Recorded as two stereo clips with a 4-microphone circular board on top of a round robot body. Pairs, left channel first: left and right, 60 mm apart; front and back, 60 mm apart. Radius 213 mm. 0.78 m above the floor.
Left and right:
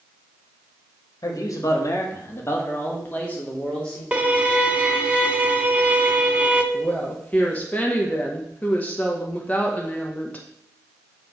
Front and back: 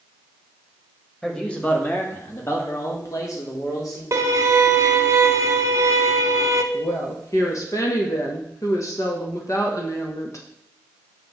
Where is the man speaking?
80° left, 2 m; by 4.0 s 15° left, 3 m.